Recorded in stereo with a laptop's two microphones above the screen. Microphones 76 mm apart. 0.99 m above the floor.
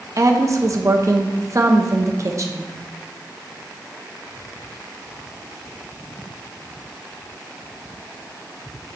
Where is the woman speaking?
45° right (ahead or behind), 1.0 m.